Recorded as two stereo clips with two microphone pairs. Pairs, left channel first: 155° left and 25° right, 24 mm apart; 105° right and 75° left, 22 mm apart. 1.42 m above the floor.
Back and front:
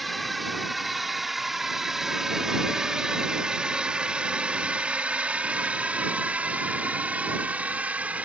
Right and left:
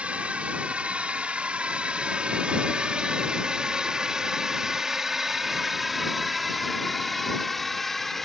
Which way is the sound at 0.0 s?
65° left.